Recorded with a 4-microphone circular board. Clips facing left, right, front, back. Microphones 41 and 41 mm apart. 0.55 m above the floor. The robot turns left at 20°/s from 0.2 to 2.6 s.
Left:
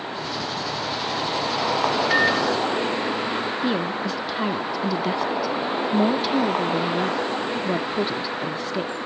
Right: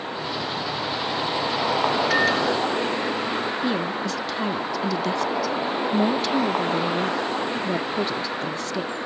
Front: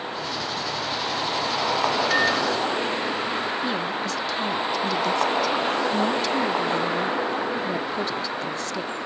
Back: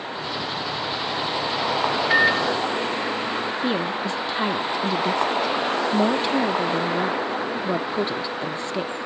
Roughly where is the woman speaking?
Behind left.